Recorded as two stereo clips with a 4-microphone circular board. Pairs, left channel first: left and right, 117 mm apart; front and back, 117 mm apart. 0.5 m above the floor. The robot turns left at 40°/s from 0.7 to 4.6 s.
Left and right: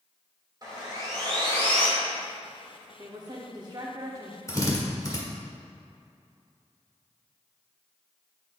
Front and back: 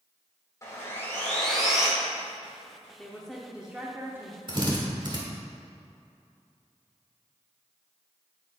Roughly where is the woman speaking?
Right.